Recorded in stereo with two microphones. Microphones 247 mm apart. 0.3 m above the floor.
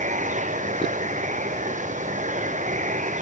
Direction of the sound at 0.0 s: 30° right (ahead or behind).